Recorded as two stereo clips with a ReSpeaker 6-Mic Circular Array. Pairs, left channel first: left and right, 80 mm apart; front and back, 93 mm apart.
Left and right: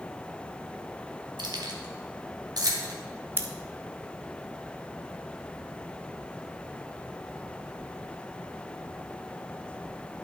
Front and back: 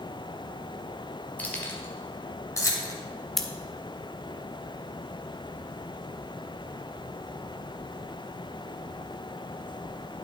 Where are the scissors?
85° right, 0.7 m.